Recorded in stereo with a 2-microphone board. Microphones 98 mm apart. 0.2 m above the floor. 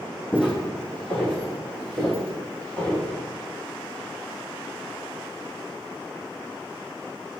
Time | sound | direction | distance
0.3 | footsteps | 15° left (ahead or behind) | 0.7 m